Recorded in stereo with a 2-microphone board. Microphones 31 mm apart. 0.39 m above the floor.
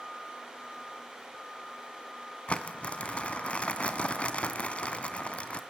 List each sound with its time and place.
2.5 s crumpling: 40° left (ahead or behind), 1.7 m